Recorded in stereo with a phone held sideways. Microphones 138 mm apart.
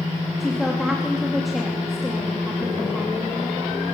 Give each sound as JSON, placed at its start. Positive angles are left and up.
{"t": 0.4, "sound": "a woman speaking", "side_deg": 0, "distance_m": 3.5}